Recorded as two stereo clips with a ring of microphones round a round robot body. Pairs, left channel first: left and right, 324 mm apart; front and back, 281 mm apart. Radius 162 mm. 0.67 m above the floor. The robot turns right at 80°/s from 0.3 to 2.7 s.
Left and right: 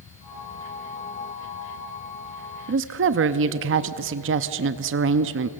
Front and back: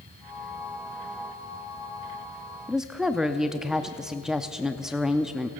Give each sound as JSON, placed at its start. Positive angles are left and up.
{"t": 2.7, "sound": "a woman speaking", "azimuth_deg": -95, "distance_m": 0.5}